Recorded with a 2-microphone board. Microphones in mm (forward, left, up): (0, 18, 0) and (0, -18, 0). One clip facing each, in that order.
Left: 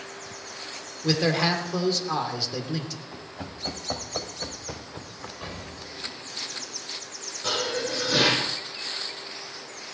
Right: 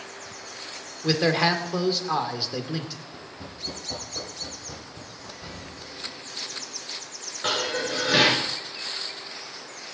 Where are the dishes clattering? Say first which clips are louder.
Right 1 dB; 45° right (ahead or behind), 5.5 m.